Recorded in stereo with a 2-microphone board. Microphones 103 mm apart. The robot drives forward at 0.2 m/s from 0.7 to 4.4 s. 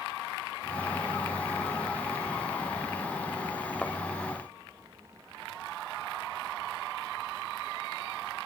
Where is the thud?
5° left (ahead or behind), 0.8 m.